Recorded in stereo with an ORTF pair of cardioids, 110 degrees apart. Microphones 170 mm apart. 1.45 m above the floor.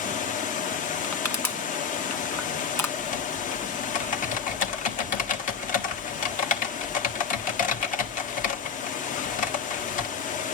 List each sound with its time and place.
0.0 s running water: 50° left, 0.7 m
1.0 s crushing: 15° left, 1.2 m
3.0 s typing on a keyboard: 50° left, 1.3 m